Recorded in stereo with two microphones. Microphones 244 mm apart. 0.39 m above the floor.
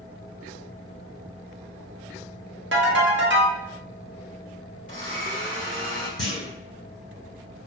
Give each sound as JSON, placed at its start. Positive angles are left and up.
{"t": 2.7, "sound": "a ringtone", "side_deg": -50, "distance_m": 0.8}
{"t": 4.9, "sound": "a blender", "side_deg": 30, "distance_m": 1.5}
{"t": 6.2, "sound": "a clunk", "side_deg": 65, "distance_m": 1.0}